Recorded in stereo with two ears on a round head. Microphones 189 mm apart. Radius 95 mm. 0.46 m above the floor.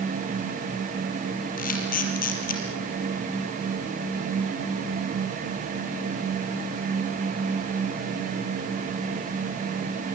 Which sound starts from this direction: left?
A camera shutter, at 1.6 s.